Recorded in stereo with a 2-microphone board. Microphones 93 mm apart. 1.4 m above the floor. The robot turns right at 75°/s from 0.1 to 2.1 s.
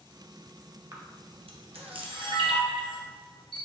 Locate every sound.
0.9 s a camera shutter: 30° right (ahead or behind), 0.7 m; by 3.6 s 60° right (ahead or behind), 0.7 m